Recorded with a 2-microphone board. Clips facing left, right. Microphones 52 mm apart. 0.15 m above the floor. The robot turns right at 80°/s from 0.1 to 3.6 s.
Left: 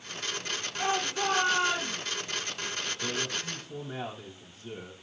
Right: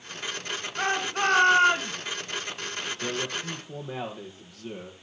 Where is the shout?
130° right, 2 m; by 1.9 s 35° right, 2 m.